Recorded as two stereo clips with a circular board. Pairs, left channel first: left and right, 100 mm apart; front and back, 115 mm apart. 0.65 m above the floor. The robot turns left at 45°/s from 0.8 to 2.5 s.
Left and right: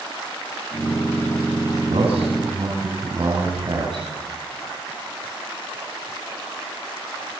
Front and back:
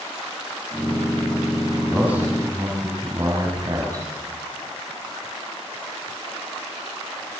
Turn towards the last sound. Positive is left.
turn(degrees=-125)